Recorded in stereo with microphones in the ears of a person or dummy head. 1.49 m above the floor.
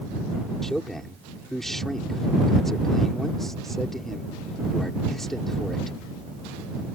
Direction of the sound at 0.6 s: Centre (ahead or behind).